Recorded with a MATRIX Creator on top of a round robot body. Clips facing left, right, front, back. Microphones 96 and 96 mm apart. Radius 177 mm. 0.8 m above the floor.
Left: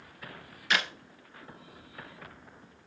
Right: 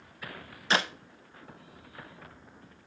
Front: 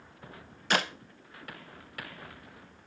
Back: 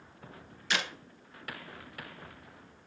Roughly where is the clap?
Ahead right.